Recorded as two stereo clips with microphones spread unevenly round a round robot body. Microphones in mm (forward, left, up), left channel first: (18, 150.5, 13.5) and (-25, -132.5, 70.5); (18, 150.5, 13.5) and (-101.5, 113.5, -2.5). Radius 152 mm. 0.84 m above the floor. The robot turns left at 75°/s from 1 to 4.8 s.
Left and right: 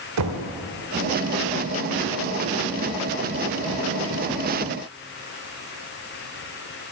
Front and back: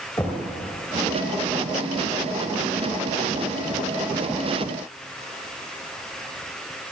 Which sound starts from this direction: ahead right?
Knocking, at 0.2 s.